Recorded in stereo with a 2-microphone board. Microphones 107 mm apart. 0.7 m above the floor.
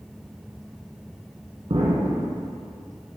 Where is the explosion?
70° right (ahead or behind), 1.5 m.